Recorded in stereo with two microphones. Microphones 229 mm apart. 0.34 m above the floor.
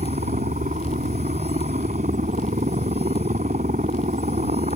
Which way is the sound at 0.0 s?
35° right (ahead or behind).